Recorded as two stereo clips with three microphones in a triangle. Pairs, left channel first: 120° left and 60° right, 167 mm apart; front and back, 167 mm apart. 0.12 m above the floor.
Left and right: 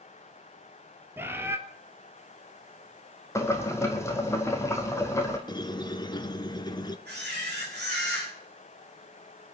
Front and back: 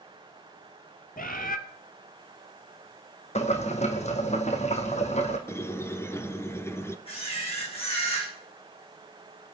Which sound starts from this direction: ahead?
A bird, at 1.2 s.